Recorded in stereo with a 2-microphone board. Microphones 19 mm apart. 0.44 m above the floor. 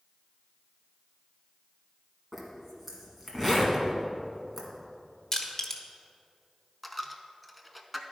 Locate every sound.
2.3 s a zipper: 10° right (ahead or behind), 1.7 m
5.3 s crushing: 25° left (ahead or behind), 1.0 m
6.8 s a dropped coin: centre (ahead or behind), 0.6 m